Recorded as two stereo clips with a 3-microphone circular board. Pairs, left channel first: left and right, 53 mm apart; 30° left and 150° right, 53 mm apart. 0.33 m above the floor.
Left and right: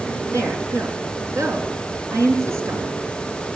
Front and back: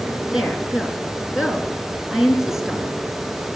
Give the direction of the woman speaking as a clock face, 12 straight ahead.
2 o'clock.